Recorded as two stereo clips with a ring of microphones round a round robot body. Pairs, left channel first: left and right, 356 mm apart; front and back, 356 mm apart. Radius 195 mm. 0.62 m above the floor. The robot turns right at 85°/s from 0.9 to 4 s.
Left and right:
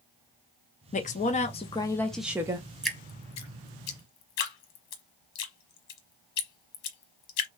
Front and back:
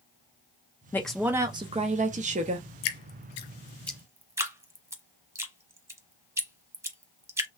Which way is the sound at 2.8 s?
5° right.